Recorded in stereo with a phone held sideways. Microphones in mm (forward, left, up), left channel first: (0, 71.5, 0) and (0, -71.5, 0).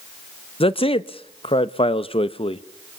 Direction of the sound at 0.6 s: 40° left (ahead or behind).